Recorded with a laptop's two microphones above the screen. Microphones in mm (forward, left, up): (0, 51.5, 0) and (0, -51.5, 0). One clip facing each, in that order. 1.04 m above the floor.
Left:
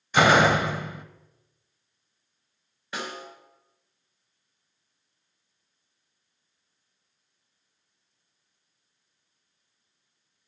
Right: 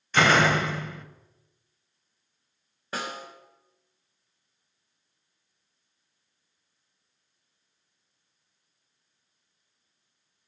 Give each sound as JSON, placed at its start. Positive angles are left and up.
{"t": 0.1, "sound": "a door slam", "side_deg": 15, "distance_m": 0.7}
{"t": 2.9, "sound": "a snare drum", "side_deg": -40, "distance_m": 3.0}